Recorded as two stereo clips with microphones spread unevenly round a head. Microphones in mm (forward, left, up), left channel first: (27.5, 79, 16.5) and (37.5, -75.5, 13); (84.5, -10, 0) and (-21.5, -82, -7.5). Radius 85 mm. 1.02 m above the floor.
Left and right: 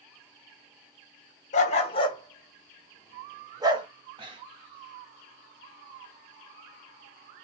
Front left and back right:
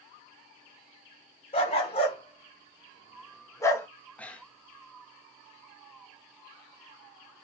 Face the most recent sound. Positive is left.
turn(degrees=-40)